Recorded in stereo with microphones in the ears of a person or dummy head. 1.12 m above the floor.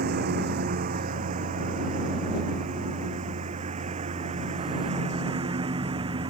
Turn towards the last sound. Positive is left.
turn(degrees=-35)  # may be behind; listen again after turning